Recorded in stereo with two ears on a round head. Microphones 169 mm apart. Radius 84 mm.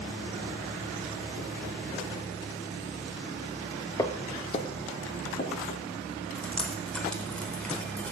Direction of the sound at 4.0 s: 15° left (ahead or behind).